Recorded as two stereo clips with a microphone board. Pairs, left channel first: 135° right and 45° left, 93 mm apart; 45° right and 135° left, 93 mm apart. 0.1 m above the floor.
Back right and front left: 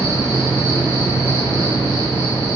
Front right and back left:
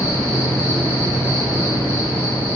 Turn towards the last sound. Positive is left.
turn(degrees=90)